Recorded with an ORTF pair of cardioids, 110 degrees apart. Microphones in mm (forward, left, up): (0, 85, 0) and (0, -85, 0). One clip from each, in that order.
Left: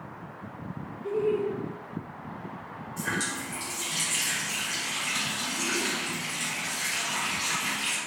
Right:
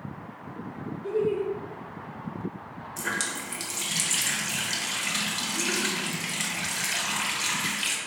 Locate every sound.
1.0 s laughter: 15° right, 0.7 m
3.0 s a running tap: 55° right, 1.1 m